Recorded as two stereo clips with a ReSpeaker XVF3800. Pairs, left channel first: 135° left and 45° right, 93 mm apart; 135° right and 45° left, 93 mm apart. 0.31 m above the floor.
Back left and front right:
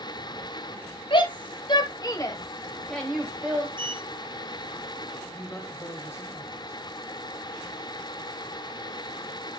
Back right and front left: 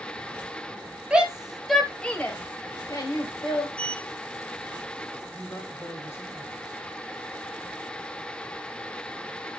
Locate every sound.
1.1 s a shout: 125° left, 2 m; by 3.7 s 110° right, 1.8 m
3.8 s a sliding door: 60° right, 0.8 m
5.3 s a woman speaking: 175° right, 1.4 m